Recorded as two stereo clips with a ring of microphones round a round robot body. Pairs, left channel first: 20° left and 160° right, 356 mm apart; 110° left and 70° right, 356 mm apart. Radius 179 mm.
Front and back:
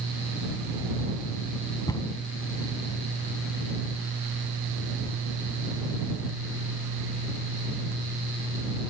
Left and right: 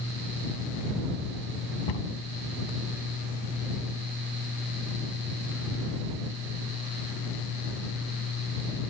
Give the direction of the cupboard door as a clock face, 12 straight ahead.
9 o'clock.